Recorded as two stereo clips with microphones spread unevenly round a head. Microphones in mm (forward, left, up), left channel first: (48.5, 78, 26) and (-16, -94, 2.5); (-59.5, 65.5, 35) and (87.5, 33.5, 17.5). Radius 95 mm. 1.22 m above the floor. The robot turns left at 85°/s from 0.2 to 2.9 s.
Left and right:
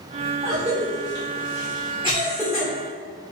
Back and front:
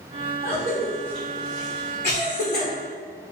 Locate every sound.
0.4 s a cough: 40° right, 1.0 m; by 2.7 s 130° left, 1.0 m